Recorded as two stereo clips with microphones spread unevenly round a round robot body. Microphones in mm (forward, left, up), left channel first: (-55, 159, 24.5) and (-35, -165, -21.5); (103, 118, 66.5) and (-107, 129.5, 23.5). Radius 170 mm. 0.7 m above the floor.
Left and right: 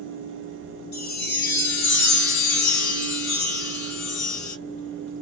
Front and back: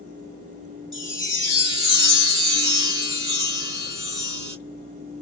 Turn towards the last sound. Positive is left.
turn(degrees=105)